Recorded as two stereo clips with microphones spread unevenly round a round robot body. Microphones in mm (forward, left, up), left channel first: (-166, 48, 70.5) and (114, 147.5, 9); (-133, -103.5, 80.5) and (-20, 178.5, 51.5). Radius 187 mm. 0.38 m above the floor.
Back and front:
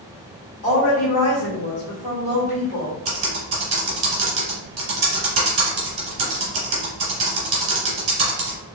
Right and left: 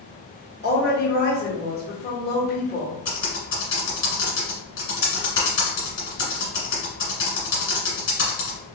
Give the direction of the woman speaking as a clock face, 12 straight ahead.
5 o'clock.